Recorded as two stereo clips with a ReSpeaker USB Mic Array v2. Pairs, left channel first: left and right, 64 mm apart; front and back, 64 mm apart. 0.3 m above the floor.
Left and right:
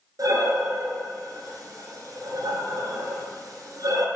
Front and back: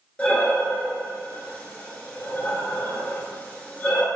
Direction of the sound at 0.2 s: 70° right.